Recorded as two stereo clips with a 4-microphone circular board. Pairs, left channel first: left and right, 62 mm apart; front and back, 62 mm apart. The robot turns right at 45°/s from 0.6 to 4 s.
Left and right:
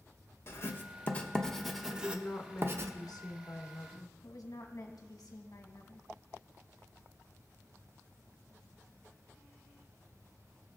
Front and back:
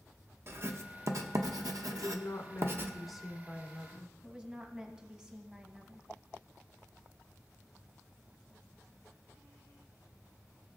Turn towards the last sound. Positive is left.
turn(degrees=105)